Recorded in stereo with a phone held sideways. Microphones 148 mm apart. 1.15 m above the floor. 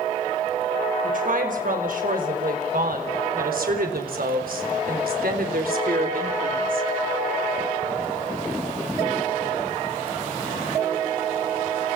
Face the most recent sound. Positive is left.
turn(degrees=-70)  # may be behind; listen again after turning